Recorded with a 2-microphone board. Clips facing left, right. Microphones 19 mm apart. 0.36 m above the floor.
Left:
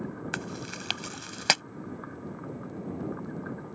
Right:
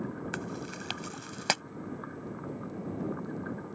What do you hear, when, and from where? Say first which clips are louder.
0.3 s chewing: left 2 dB; 35° left (ahead or behind)